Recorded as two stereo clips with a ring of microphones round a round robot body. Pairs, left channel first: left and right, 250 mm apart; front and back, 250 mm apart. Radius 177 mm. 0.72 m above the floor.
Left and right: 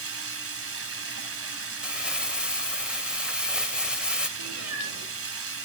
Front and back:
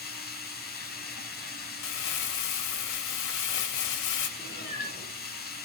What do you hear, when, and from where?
0.0 s running water: 55° right, 2 m
1.8 s crumpling: 5° right, 2 m
4.4 s a cat meowing: 80° right, 5.5 m